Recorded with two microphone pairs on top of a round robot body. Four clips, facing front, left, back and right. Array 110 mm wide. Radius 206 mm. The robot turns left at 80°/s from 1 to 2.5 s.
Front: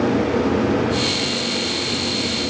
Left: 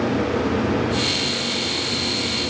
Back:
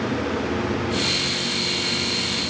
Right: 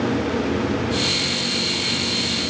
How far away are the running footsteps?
I don't hear running footsteps.